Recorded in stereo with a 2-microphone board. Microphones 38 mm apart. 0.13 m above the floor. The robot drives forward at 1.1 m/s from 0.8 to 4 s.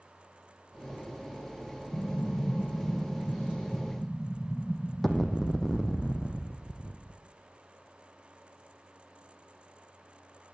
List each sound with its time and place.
1.9 s an explosion: 35° left (ahead or behind), 0.6 m; by 7.2 s 10° left (ahead or behind), 2.0 m